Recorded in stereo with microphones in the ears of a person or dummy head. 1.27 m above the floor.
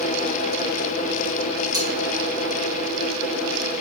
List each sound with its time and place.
1.7 s cutlery clinking: 25° right (ahead or behind), 2.5 m